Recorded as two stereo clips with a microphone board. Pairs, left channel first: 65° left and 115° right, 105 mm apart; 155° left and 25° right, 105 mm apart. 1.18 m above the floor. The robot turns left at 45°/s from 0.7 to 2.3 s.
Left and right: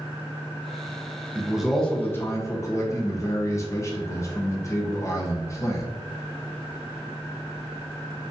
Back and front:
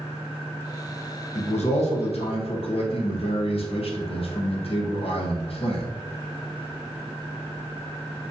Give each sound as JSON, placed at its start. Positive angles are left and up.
{"t": 1.4, "sound": "a man speaking", "azimuth_deg": 170, "distance_m": 0.8}